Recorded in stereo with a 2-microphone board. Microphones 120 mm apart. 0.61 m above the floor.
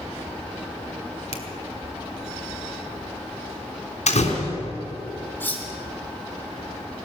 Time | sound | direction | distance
1.3 | a finger snap | 70° left (ahead or behind) | 1.9 m
4.1 | a door slam | 85° left | 3.5 m
5.4 | cutlery clinking | 15° left (ahead or behind) | 2.5 m